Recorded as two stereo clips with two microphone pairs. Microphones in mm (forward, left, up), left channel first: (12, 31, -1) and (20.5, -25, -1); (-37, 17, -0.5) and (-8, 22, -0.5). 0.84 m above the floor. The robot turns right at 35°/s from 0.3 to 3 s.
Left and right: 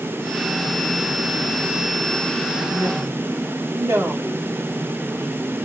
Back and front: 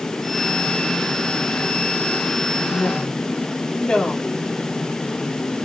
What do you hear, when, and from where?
2.6 s a woman speaking: 125° right, 2.5 m; by 4.4 s 110° right, 2.5 m